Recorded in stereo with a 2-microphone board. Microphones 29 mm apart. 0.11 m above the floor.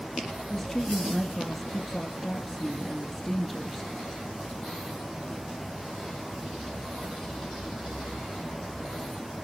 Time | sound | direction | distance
0.5 | a woman speaking | 15° left (ahead or behind) | 1.6 m